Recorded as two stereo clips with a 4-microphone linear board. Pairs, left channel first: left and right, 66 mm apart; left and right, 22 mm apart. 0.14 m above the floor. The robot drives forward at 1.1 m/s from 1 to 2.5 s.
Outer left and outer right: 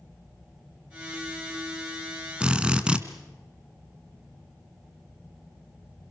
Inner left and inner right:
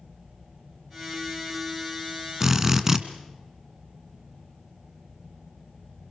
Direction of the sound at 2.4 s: 15° right (ahead or behind).